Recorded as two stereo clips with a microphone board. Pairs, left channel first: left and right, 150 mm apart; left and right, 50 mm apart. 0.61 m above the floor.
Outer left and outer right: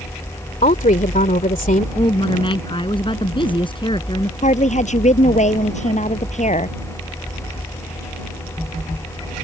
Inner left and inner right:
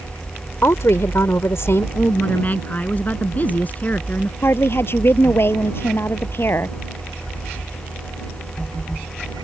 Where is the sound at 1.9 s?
35° left (ahead or behind).